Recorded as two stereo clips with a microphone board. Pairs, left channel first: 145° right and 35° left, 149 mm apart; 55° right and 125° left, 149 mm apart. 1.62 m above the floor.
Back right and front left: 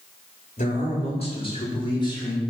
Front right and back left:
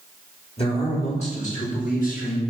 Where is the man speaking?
105° right, 3.5 m; by 2.4 s 80° right, 4 m.